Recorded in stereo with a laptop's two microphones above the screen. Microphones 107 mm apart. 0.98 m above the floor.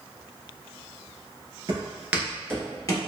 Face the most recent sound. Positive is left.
turn(degrees=35)  # may be behind; listen again after turning